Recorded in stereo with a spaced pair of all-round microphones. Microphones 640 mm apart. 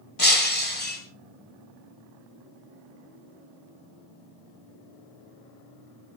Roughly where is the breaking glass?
Left.